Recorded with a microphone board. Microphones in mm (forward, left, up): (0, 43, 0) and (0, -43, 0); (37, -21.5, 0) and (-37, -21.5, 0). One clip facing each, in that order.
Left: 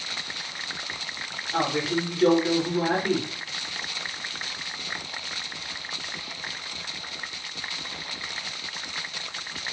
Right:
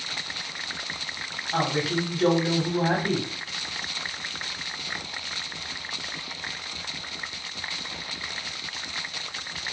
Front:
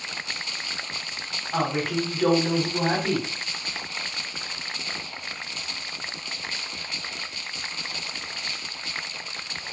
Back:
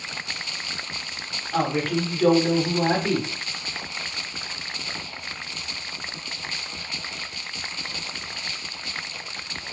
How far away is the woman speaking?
About 1.2 m.